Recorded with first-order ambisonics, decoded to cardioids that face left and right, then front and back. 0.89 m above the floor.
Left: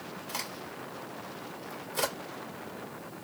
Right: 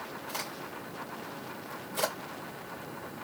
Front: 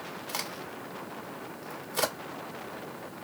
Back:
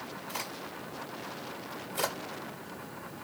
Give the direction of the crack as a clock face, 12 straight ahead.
12 o'clock.